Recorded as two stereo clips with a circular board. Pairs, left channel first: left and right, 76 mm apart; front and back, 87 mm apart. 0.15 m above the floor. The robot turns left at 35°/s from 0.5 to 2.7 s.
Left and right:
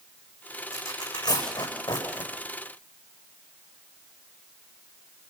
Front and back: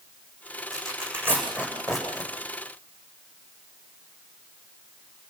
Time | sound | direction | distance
0.7 | tearing paper | 140° left | 9 m